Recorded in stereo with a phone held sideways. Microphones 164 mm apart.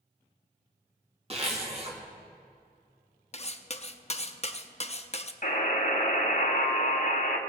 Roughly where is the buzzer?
Left.